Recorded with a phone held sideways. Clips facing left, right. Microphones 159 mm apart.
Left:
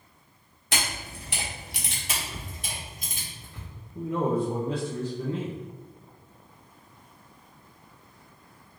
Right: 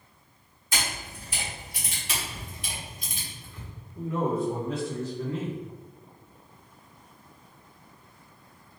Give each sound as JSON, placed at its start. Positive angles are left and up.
{"t": 0.7, "sound": "a camera shutter", "side_deg": 75, "distance_m": 1.3}
{"t": 2.1, "sound": "a camera shutter", "side_deg": 45, "distance_m": 1.8}
{"t": 4.0, "sound": "a man speaking", "side_deg": 30, "distance_m": 0.9}